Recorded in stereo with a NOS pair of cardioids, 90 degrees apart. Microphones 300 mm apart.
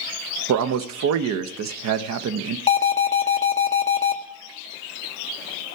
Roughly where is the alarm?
Ahead.